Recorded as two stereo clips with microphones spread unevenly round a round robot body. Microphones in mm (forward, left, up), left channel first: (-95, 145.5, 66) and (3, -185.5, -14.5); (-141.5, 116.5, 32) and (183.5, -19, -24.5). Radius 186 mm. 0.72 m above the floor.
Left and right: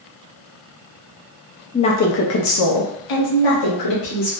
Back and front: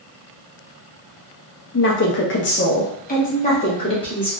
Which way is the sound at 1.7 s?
160° right.